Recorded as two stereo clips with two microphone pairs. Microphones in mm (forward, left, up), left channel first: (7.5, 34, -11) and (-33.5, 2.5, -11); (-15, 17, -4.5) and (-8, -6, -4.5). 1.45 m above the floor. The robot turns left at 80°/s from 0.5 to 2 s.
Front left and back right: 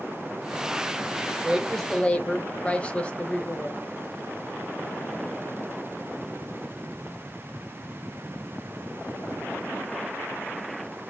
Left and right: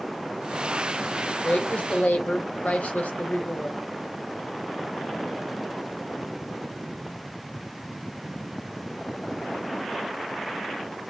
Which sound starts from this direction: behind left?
A woman speaking, at 1.4 s.